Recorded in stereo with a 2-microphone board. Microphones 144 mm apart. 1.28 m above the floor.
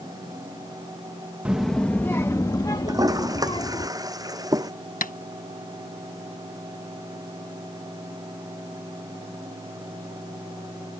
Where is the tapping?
70° left (ahead or behind).